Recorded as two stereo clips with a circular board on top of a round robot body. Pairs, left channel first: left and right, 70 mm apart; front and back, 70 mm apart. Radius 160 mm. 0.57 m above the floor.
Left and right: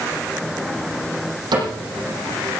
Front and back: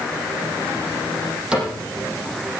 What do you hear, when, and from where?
1.5 s a cupboard door: 100° right, 8.5 m